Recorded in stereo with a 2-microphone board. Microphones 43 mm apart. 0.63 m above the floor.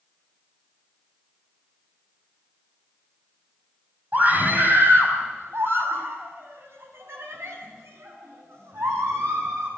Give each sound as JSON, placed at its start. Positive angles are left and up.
{"t": 4.1, "sound": "a scream", "side_deg": -40, "distance_m": 5.0}